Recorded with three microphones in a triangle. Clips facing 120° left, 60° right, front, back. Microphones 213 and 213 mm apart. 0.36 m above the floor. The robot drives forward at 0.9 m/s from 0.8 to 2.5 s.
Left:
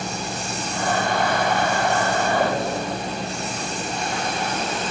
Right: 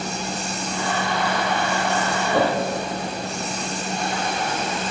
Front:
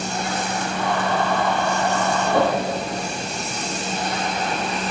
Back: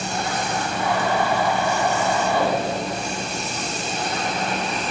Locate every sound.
2.3 s a whoosh: 35° right, 7.5 m